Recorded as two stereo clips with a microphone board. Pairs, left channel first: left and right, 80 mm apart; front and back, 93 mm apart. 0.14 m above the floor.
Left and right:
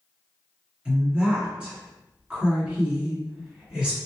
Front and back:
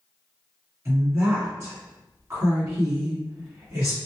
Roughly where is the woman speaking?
Behind.